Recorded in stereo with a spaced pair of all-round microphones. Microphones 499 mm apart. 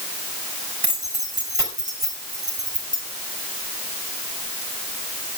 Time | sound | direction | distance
0.8 | keys jangling | 45° right (ahead or behind) | 5 m